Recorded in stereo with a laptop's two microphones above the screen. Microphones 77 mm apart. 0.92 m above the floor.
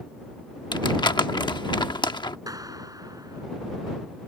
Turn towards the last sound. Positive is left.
turn(degrees=-50)  # may be behind; listen again after turning